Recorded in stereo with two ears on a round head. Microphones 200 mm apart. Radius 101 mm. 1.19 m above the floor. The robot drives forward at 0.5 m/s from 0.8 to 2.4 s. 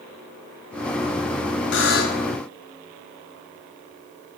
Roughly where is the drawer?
I don't hear a drawer.